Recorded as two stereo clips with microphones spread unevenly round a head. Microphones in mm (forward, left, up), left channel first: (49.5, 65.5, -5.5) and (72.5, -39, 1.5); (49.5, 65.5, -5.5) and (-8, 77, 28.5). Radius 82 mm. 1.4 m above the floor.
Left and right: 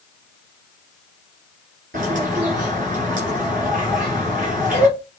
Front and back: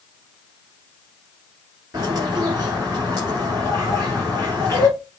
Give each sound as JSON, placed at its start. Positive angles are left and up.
{"t": 1.9, "sound": "a bird", "azimuth_deg": -120, "distance_m": 1.7}